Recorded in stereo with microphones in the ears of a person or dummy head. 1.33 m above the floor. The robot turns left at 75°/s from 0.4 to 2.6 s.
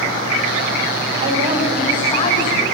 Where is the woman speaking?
120° right, 7.5 m; by 2.6 s 130° left, 7.5 m.